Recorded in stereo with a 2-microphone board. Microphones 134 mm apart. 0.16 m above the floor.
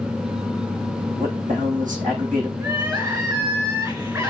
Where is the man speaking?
70° right (ahead or behind), 7 m.